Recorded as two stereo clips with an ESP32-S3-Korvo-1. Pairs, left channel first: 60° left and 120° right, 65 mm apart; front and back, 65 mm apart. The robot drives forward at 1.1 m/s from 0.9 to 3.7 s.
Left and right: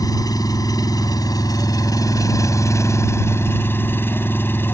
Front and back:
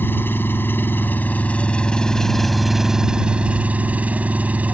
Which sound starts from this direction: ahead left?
An engine running, at 0.0 s.